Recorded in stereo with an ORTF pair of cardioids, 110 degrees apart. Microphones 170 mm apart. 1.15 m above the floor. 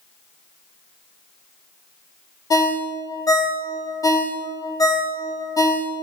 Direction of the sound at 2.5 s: 20° left.